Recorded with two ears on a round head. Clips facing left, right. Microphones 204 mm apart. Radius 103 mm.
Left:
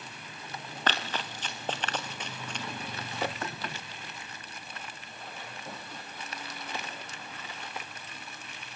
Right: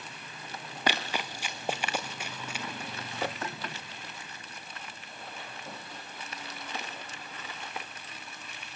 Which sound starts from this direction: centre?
Running footsteps, at 0.9 s.